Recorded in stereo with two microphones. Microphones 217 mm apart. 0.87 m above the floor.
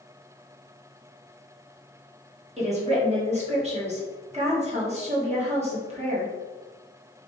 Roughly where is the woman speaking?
Right.